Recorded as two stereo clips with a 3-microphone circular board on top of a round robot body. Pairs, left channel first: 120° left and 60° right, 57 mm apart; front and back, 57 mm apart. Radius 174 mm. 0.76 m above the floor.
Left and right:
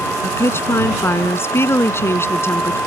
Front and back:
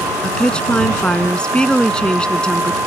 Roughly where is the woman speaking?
Left.